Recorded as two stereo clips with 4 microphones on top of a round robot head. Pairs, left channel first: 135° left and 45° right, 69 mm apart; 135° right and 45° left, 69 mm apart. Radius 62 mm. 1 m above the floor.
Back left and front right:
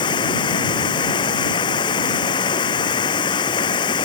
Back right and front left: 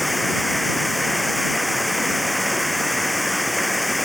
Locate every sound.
0.0 s running water: 135° left